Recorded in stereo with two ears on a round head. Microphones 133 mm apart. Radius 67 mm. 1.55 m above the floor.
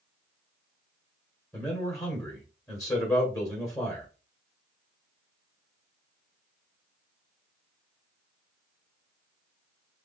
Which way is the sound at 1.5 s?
20° left (ahead or behind).